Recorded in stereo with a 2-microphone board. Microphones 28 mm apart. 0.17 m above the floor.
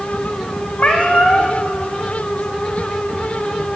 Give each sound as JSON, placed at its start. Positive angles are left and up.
{"t": 0.8, "sound": "a cat meowing", "side_deg": 45, "distance_m": 3.5}